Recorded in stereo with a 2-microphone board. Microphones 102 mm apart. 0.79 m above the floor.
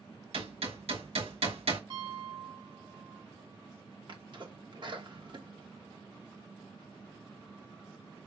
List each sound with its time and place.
0.3 s hammering: 80° right, 2.5 m
1.9 s a piano: 50° right (ahead or behind), 1.5 m
4.1 s a sneeze: 50° right (ahead or behind), 1.4 m